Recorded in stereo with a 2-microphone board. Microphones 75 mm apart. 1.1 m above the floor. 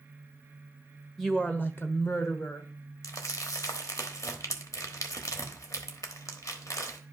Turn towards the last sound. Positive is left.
turn(degrees=45)  # may be behind; listen again after turning